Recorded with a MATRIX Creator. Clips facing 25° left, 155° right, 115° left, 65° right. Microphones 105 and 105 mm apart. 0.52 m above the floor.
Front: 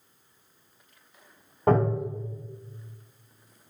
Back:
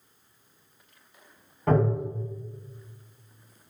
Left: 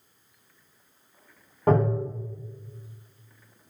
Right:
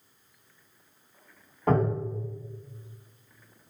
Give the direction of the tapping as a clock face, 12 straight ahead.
10 o'clock.